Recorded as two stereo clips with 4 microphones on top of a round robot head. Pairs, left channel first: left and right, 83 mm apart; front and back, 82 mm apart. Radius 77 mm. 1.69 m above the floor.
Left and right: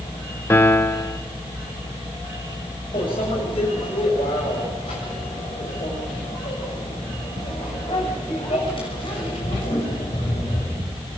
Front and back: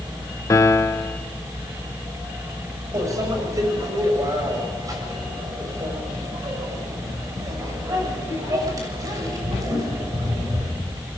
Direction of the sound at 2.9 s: 130° left.